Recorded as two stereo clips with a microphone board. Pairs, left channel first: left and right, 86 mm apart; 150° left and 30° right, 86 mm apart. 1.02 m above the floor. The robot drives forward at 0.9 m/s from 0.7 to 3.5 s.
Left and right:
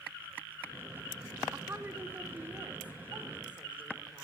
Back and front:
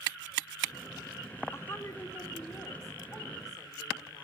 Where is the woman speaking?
150° right, 1.4 m; by 4.2 s 165° right, 3 m.